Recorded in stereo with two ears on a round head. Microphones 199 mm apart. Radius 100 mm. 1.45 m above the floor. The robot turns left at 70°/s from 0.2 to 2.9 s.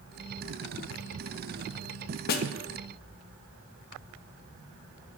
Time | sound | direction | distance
2.3 | a snare drum | 45° left (ahead or behind) | 0.5 m